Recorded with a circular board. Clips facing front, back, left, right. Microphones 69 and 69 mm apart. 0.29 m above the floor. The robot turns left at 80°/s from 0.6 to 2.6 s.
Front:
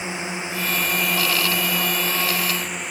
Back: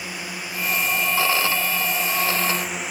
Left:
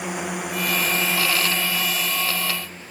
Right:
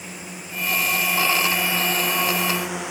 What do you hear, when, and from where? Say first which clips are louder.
0.0 s a drone: front 4 dB, left 9 dB; 65° left; by 2.9 s 95° right